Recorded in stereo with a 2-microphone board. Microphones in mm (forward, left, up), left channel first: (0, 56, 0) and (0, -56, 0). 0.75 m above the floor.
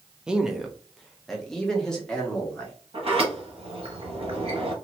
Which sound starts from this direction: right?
A sliding door, at 2.9 s.